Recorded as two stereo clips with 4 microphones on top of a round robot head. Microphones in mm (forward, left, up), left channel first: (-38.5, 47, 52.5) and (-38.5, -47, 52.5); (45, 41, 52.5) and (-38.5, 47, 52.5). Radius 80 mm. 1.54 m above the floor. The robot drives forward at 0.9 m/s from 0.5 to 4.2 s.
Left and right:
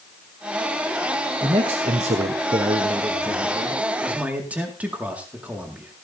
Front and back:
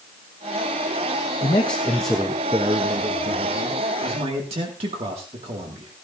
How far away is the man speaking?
About 0.9 m.